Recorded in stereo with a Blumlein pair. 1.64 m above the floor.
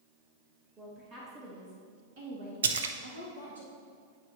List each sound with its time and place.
0.8 s a woman speaking: 20° right, 1.5 m; by 3.6 s 75° right, 2 m
2.6 s a splash: 65° right, 0.5 m